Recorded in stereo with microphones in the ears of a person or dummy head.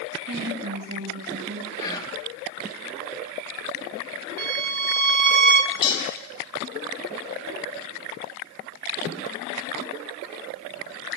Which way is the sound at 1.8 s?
25° left (ahead or behind).